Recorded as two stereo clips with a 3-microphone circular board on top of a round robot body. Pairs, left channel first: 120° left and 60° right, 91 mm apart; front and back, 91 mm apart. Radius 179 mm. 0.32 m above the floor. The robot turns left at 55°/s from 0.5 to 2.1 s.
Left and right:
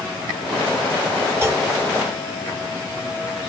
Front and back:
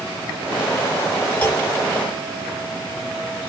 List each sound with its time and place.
1.4 s a clunk: 40° right, 1.4 m; by 1.6 s 55° right, 1.4 m